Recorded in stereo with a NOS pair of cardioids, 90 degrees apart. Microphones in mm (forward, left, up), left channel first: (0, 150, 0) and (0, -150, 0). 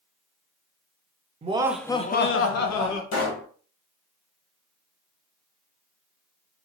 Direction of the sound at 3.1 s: 60° left.